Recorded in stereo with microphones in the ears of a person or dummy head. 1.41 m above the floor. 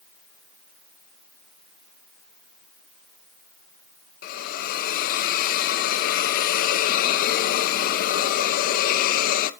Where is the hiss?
50° left (ahead or behind), 0.6 m.